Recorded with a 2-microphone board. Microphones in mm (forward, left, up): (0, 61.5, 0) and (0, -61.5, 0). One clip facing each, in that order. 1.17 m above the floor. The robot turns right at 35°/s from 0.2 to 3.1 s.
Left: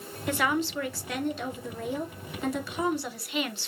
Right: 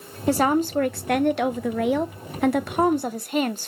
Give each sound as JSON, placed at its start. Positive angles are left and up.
{"t": 0.3, "sound": "a woman speaking", "azimuth_deg": -145, "distance_m": 0.5}